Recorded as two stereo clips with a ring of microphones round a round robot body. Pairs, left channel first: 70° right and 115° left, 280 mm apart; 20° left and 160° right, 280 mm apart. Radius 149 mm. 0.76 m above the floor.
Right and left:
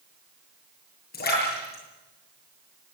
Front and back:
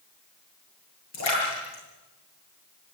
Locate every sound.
1.1 s a splash: 10° right, 9 m